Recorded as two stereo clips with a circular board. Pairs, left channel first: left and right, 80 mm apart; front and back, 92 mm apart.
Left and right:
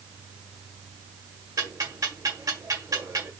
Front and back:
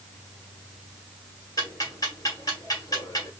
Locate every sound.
1.6 s ticking: 45° right, 1.6 m